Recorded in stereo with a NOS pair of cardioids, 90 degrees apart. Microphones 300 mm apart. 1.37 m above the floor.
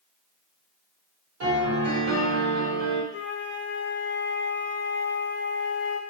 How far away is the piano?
About 2 m.